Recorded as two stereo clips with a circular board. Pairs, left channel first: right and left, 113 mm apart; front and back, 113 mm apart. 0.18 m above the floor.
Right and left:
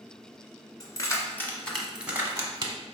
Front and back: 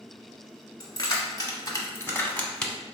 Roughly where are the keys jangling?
Ahead right.